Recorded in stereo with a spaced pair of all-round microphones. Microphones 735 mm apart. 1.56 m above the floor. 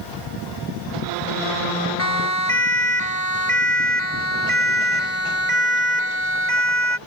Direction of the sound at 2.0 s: 75° right (ahead or behind).